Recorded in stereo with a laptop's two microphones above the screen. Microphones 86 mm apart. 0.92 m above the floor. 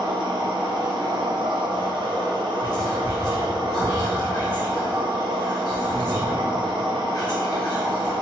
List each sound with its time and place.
0.0 s a machine running: 70° right (ahead or behind), 0.9 m
2.6 s whispering: 55° left (ahead or behind), 1.5 m